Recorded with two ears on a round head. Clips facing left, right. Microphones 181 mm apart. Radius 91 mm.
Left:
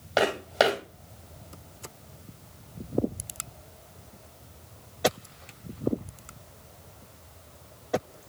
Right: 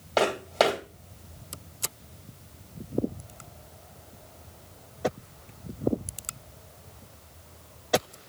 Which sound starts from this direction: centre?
Footsteps, at 0.2 s.